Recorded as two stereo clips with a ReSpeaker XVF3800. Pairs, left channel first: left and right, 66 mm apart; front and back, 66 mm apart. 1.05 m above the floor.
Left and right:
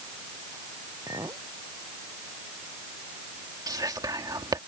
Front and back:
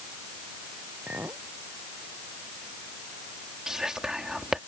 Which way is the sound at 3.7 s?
100° right.